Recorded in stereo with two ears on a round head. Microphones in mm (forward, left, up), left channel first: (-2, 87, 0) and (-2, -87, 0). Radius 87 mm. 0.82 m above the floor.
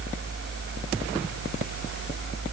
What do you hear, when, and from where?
Only background noise.